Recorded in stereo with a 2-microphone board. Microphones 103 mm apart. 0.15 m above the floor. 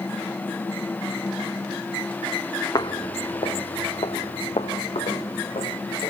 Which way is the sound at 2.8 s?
40° left (ahead or behind).